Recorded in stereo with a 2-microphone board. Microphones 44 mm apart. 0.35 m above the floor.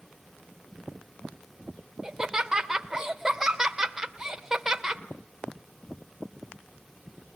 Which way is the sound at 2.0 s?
15° right (ahead or behind).